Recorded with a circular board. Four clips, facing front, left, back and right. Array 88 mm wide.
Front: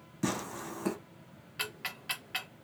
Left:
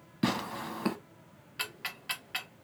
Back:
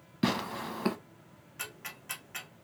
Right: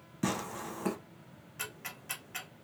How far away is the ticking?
About 0.6 m.